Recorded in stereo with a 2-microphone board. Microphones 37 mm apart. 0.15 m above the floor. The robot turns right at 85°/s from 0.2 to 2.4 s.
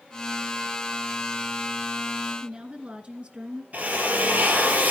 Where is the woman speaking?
35° right (ahead or behind), 2 m.